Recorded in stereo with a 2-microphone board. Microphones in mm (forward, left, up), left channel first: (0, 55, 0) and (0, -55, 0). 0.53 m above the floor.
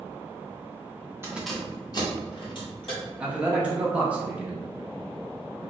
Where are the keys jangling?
20° right (ahead or behind), 0.6 m; by 3.0 s 55° left (ahead or behind), 2.0 m.